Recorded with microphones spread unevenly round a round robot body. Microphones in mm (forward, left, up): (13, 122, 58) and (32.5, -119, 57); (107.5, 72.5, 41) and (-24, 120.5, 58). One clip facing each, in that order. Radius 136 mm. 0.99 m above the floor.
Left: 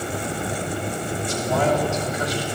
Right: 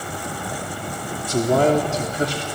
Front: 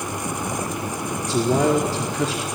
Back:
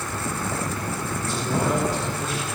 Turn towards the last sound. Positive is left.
turn(degrees=-20)